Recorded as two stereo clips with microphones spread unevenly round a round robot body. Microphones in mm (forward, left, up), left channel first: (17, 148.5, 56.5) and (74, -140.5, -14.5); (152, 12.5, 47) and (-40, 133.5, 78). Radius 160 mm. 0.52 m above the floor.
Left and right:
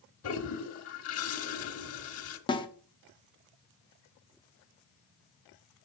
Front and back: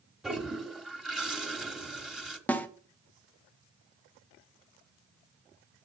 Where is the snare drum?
15° left, 1.0 m.